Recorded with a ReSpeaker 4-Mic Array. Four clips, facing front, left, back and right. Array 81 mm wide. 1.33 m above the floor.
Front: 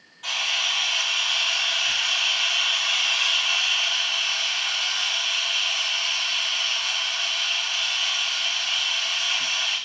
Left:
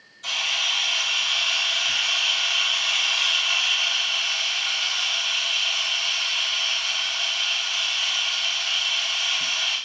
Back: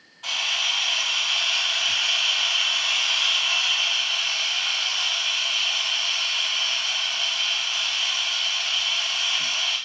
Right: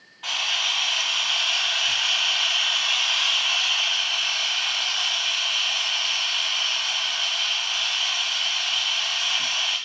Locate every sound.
0.2 s a camera shutter: 85° right, 1.7 m